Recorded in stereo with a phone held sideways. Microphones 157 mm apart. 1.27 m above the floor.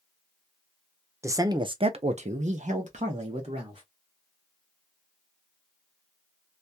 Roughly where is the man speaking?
Centre.